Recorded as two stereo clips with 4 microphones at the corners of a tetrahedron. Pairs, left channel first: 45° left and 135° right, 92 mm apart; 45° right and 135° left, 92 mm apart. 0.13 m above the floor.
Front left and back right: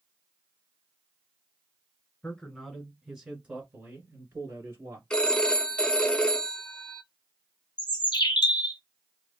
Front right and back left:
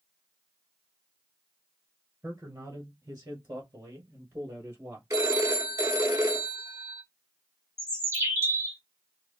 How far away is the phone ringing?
About 0.8 m.